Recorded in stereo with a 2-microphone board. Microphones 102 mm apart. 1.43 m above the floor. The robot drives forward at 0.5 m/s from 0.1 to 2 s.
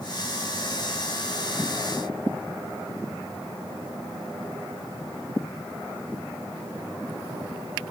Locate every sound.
Only background noise.